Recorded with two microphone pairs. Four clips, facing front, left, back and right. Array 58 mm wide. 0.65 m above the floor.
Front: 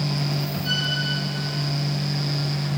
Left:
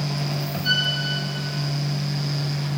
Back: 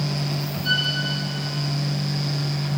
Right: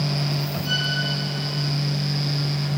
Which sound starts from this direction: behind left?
A violin, at 0.6 s.